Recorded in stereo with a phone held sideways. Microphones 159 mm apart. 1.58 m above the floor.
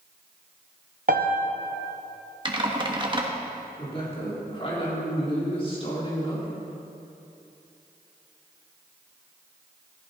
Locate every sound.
1.1 s a piano: 65° right (ahead or behind), 1.0 m
2.5 s typing on a keyboard: 30° right (ahead or behind), 1.4 m
3.8 s a woman speaking: 35° left (ahead or behind), 4 m